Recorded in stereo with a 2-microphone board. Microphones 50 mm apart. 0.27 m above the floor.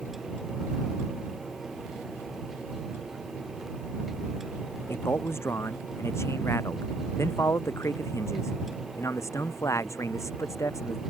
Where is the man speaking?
55° left (ahead or behind); by 11.0 s 75° left (ahead or behind).